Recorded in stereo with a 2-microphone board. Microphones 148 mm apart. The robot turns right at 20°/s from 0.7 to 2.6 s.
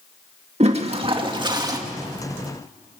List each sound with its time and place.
0.6 s a toilet flushing: 45° right (ahead or behind), 2 m; by 1.8 s 25° right (ahead or behind), 2 m